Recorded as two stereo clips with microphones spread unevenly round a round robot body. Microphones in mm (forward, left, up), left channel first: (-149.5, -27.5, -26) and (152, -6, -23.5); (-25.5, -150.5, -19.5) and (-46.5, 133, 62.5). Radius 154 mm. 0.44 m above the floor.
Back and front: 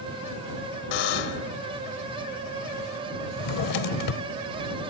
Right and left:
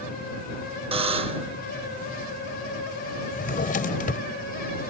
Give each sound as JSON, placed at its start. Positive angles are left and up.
{"t": 0.9, "sound": "a buzzer", "azimuth_deg": 170}
{"t": 3.3, "sound": "a drawer", "azimuth_deg": -145}